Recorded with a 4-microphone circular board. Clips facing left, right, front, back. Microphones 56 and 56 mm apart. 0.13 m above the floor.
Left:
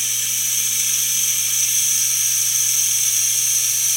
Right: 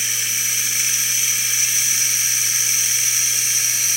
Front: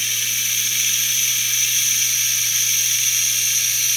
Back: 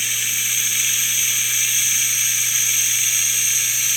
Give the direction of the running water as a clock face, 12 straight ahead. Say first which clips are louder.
Right 4 dB, back 1 dB; 4 o'clock.